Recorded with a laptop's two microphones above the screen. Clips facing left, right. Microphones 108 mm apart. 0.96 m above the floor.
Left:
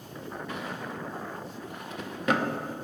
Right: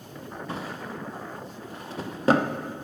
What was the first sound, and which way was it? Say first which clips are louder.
A drawer: right 3 dB; 35° right (ahead or behind).